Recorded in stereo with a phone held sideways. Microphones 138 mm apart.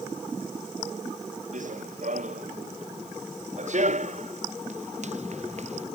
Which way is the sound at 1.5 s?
65° right (ahead or behind).